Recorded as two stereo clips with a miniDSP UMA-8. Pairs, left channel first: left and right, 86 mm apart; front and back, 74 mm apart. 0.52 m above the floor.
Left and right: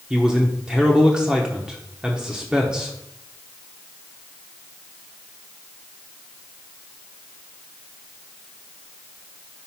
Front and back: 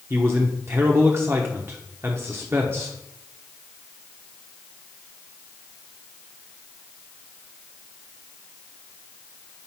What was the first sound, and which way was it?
A man speaking, 165° right.